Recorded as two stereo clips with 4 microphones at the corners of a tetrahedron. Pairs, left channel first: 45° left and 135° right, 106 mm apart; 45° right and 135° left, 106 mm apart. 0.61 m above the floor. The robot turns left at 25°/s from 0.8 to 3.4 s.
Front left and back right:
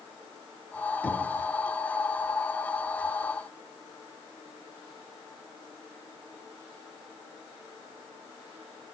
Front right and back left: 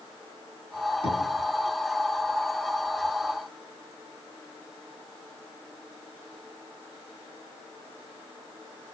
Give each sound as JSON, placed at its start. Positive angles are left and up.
{"t": 1.0, "sound": "knocking", "azimuth_deg": -30, "distance_m": 3.5}